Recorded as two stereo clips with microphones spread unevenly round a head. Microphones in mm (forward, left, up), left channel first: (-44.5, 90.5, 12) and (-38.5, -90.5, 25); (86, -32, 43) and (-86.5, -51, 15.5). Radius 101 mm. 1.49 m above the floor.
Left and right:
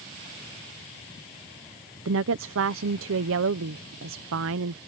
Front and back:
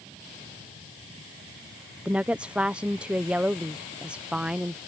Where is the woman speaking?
90° right.